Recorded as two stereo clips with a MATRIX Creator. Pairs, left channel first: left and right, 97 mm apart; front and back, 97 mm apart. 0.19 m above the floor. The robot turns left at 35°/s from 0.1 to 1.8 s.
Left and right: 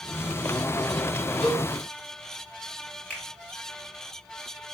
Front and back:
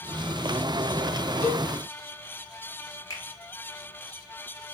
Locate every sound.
1.4 s a cowbell: 70° left, 1.7 m; by 1.7 s 60° left, 1.7 m
3.1 s a finger snap: 20° left, 1.2 m